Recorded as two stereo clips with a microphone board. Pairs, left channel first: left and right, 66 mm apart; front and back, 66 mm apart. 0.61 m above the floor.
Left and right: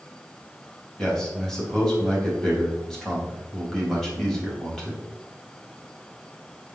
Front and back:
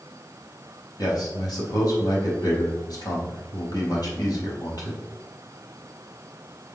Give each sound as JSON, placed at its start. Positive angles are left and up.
{"t": 1.0, "sound": "a man speaking", "azimuth_deg": 5, "distance_m": 4.0}